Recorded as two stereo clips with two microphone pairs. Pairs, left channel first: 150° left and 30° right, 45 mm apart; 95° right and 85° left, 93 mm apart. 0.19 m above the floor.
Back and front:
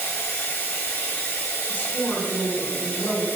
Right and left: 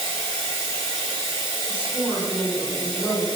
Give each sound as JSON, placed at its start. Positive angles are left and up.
{"t": 0.0, "sound": "running water", "azimuth_deg": 100, "distance_m": 1.4}
{"t": 1.7, "sound": "a woman speaking", "azimuth_deg": 150, "distance_m": 1.4}